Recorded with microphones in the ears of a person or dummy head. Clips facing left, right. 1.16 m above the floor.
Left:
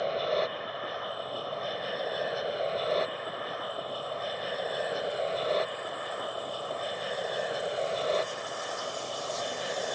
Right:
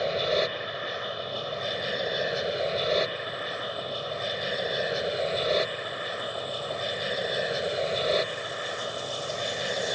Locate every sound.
0.0 s an aircraft: 30° right (ahead or behind)